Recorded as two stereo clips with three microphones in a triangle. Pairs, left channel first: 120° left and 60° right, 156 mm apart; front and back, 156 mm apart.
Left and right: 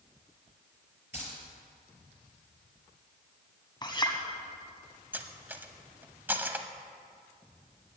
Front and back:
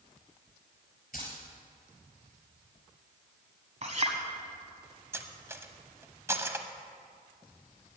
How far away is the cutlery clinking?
About 0.8 m.